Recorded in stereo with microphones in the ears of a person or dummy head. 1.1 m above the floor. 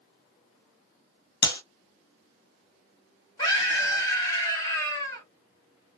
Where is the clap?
50° left (ahead or behind), 1.0 m.